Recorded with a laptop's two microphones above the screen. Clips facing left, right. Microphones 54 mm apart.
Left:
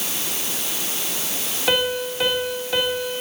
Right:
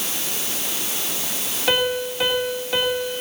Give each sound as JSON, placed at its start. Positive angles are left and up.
{"t": 1.7, "sound": "a piano", "side_deg": 0, "distance_m": 3.0}